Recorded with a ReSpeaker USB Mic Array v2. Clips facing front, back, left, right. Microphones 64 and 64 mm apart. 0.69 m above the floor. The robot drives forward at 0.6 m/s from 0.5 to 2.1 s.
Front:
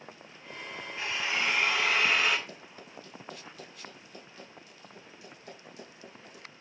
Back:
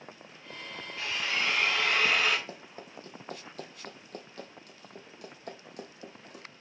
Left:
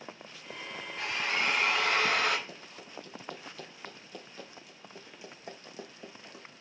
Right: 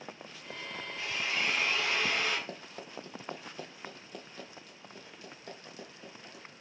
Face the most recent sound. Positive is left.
turn(degrees=150)